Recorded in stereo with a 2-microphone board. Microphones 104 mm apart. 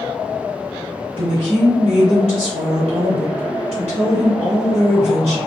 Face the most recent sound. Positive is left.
turn(degrees=-70)  # may be behind; listen again after turning